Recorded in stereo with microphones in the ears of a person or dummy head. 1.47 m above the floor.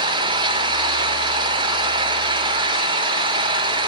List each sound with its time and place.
0.0 s an engine running: 25° right (ahead or behind), 3 m